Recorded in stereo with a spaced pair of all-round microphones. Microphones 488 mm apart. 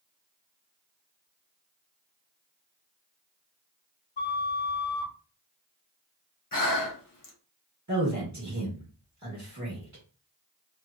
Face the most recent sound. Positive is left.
turn(degrees=-35)  # may be behind; listen again after turning